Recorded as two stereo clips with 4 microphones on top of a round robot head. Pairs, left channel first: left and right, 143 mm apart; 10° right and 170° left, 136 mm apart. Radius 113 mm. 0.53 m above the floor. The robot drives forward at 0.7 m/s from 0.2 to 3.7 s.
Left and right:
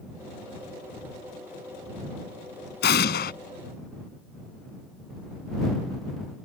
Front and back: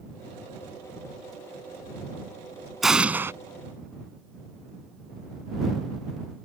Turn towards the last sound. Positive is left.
turn(degrees=110)